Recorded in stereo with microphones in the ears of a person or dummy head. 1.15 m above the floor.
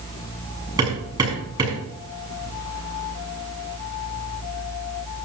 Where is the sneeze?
No sneeze in this recording.